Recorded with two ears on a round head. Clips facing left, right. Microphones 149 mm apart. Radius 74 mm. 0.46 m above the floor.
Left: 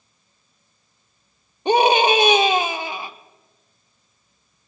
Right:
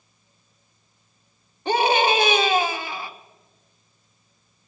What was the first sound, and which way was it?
A scream, 15° left (ahead or behind).